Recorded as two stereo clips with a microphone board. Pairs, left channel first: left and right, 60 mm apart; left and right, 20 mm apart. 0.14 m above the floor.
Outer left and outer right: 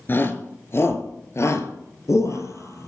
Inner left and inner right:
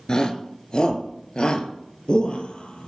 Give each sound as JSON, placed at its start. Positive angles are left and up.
{"t": 0.1, "sound": "a shout", "side_deg": 35, "distance_m": 2.0}